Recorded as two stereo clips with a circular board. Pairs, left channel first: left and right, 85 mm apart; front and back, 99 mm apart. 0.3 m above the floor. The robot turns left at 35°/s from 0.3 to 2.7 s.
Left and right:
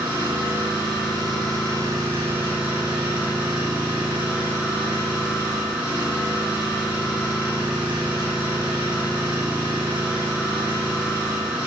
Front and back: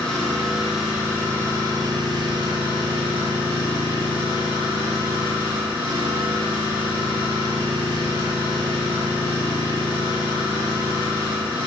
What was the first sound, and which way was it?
An engine running, 85° right.